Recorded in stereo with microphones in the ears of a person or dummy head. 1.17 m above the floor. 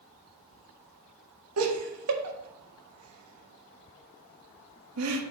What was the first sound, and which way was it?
Laughter, 85° right.